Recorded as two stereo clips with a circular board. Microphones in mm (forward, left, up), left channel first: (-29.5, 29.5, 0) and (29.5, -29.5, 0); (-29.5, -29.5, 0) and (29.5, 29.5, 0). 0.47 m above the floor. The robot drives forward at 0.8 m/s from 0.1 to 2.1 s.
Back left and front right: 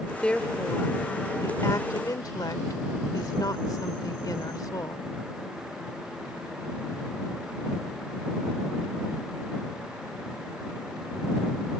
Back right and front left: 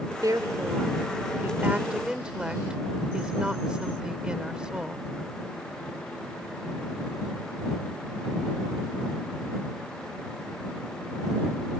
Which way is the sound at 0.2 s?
60° left.